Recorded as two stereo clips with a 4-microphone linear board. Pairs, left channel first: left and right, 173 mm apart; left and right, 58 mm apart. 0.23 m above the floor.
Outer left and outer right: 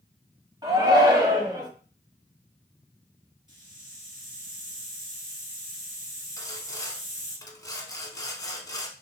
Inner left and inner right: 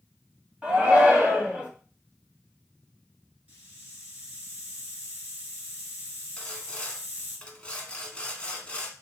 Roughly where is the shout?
Right.